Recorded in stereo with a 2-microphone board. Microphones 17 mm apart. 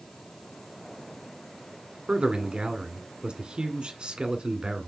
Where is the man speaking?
60° right (ahead or behind), 1.9 m.